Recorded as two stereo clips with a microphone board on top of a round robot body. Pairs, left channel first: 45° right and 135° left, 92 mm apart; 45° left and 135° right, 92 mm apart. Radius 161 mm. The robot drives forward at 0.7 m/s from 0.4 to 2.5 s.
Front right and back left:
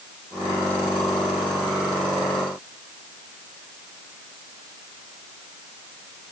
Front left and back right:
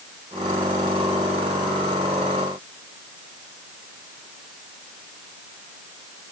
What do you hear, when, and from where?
Only background noise.